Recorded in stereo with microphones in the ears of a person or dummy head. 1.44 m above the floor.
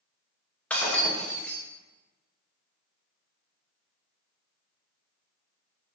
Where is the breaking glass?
5° left (ahead or behind), 1.1 m.